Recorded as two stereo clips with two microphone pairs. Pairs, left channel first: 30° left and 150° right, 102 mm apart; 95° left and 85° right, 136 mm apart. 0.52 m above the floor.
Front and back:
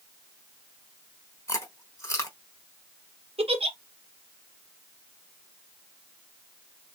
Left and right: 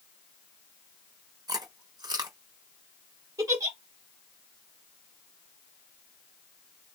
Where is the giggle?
150° right, 1.7 m.